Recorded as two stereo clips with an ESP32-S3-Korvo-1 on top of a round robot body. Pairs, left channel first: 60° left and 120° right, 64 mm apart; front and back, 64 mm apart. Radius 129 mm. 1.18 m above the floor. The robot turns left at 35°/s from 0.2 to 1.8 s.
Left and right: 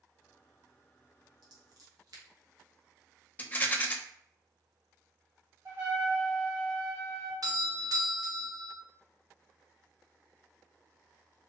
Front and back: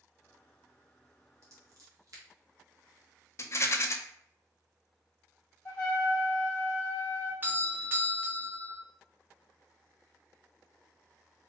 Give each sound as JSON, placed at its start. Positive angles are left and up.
{"t": 1.4, "sound": "scissors", "azimuth_deg": -135, "distance_m": 1.1}
{"t": 3.4, "sound": "a rattle", "azimuth_deg": 5, "distance_m": 0.8}
{"t": 5.7, "sound": "a trumpet", "azimuth_deg": -60, "distance_m": 0.9}
{"t": 7.4, "sound": "a doorbell", "azimuth_deg": -120, "distance_m": 0.8}